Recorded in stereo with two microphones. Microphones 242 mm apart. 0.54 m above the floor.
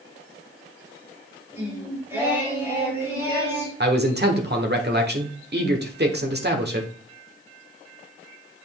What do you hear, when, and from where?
1.5 s singing: 10° right (ahead or behind), 3.5 m
3.8 s a man speaking: 45° right (ahead or behind), 1.2 m